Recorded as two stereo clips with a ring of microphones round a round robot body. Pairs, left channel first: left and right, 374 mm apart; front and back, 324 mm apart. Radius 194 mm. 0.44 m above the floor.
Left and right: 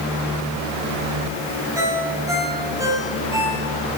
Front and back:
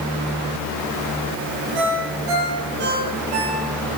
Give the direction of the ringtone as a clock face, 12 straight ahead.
6 o'clock.